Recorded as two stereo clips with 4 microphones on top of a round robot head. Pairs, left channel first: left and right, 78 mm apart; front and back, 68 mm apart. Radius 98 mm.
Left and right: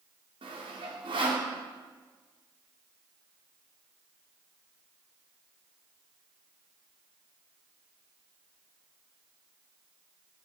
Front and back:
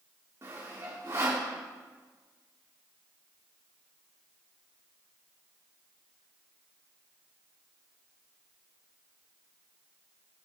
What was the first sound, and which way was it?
Sawing, 120° right.